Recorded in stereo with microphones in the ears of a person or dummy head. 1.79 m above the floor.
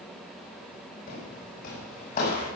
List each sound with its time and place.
1.1 s footsteps: 50° left (ahead or behind), 7 m; by 2.5 s 45° left (ahead or behind), 7.5 m